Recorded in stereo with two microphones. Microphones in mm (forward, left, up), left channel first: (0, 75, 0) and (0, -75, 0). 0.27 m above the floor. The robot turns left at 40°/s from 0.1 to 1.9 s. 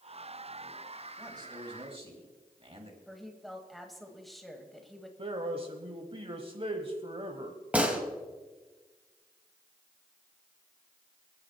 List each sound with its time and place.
1.2 s a man speaking: 25° right (ahead or behind), 2 m; by 3.0 s 40° right (ahead or behind), 2 m
3.1 s a woman speaking: centre (ahead or behind), 1.6 m
5.2 s a man speaking: 40° right (ahead or behind), 1.2 m
7.7 s a gunshot: 10° right (ahead or behind), 1.8 m